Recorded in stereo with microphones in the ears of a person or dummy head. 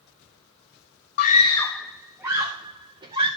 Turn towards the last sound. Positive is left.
turn(degrees=-25)  # may be behind; listen again after turning